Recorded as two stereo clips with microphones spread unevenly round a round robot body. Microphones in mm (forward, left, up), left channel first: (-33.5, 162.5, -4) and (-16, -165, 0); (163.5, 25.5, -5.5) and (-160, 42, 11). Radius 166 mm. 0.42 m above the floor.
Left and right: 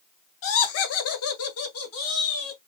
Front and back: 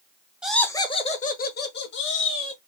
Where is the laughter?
85° left, 0.9 m; by 2.6 s 45° left, 2 m.